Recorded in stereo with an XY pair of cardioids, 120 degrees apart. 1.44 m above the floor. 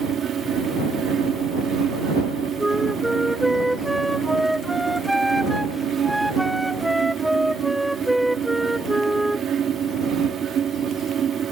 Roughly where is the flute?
Ahead.